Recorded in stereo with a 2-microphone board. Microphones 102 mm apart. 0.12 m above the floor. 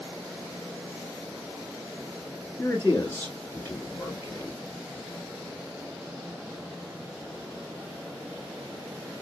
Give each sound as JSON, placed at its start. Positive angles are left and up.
{"t": 2.6, "sound": "a man speaking", "side_deg": 25, "distance_m": 1.4}